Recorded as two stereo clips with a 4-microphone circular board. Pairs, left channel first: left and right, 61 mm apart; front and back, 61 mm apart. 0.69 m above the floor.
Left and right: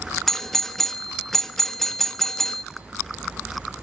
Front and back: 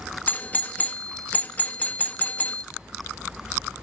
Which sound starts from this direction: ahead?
A doorbell, at 0.3 s.